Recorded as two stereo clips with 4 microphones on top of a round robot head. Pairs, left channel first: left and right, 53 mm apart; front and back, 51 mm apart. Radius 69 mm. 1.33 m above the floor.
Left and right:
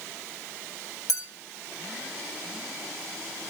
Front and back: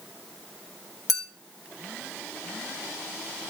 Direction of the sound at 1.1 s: 85° left.